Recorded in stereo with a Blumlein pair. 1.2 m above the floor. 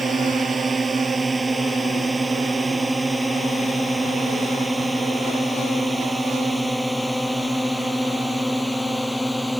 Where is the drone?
15° right; by 9.6 s 5° left.